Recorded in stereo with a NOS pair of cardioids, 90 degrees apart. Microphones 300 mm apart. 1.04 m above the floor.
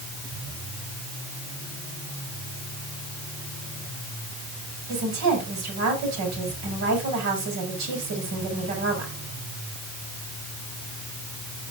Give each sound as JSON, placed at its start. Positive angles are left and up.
{"t": 4.9, "sound": "a woman speaking", "azimuth_deg": -65, "distance_m": 5.0}